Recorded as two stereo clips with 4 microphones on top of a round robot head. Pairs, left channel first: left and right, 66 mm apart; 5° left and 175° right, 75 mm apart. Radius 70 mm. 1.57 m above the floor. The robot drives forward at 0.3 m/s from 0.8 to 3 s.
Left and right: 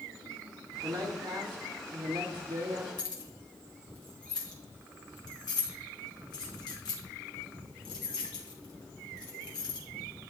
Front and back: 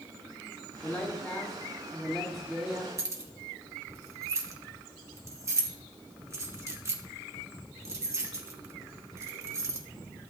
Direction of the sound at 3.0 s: 135° left.